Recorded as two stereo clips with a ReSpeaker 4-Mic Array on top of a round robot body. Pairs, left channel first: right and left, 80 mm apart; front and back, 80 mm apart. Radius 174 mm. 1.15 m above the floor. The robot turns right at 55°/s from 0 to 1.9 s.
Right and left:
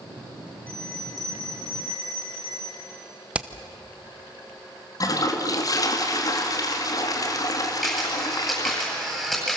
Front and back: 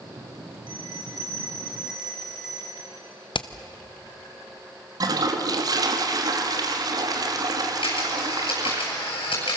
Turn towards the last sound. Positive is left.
turn(degrees=-5)